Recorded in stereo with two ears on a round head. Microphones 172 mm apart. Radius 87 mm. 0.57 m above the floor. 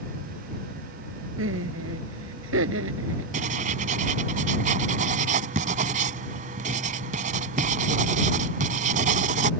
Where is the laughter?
70° right (ahead or behind).